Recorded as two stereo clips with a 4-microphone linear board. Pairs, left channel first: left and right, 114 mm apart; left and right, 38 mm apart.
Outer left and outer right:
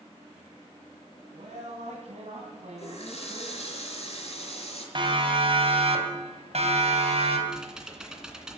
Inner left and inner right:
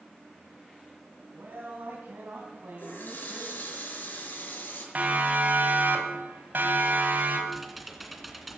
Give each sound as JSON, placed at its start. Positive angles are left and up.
{"t": 1.3, "sound": "a man speaking", "side_deg": -75, "distance_m": 3.5}
{"t": 2.8, "sound": "a running tap", "side_deg": 65, "distance_m": 5.0}
{"t": 5.0, "sound": "a siren", "side_deg": -45, "distance_m": 3.0}
{"t": 7.5, "sound": "typing on a keyboard", "side_deg": -5, "distance_m": 2.0}